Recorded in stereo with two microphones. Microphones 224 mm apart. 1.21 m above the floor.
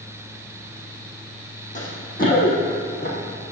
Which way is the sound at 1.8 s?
35° left (ahead or behind).